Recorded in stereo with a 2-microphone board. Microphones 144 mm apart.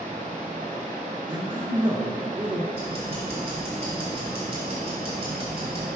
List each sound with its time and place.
0.0 s running water: 75° right (ahead or behind), 1.4 m
1.3 s a man speaking: 35° right (ahead or behind), 1.5 m
2.7 s ticking: 40° right (ahead or behind), 2.5 m